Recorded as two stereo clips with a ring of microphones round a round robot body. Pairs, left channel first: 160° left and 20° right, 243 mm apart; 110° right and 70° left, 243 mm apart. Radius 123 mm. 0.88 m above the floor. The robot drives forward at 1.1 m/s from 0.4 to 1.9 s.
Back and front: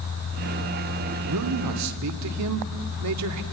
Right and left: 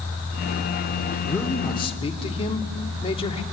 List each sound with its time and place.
1.2 s a man speaking: 30° right, 2.5 m; by 3.4 s 45° right, 1.7 m